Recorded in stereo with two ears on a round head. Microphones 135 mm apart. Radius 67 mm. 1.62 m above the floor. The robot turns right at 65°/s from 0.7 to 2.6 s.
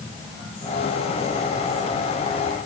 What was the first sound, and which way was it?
Only background noise.